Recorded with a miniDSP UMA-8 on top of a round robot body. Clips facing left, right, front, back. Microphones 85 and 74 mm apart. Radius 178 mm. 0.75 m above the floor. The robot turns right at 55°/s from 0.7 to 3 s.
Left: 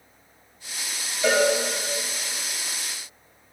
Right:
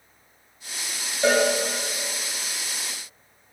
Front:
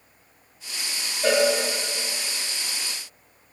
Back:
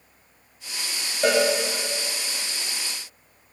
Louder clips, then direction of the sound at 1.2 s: Right 1 dB, even; 145° right.